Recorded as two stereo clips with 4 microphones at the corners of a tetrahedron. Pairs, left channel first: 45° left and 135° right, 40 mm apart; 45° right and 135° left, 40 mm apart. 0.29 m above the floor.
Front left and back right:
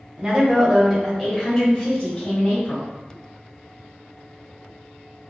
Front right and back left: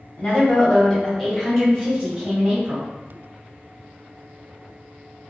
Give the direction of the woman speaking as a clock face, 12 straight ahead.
3 o'clock.